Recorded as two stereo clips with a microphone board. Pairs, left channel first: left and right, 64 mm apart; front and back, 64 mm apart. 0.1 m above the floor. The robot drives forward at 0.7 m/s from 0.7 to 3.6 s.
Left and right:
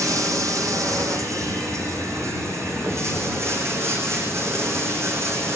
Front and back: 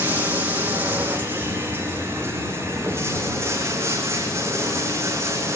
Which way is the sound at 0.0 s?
120° right.